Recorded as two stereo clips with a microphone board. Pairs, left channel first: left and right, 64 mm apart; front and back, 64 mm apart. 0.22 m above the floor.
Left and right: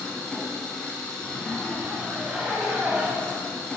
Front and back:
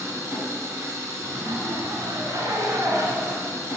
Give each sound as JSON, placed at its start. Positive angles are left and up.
{"t": 0.0, "sound": "an engine running", "azimuth_deg": 165, "distance_m": 1.6}
{"t": 1.2, "sound": "a zipper", "azimuth_deg": -165, "distance_m": 0.9}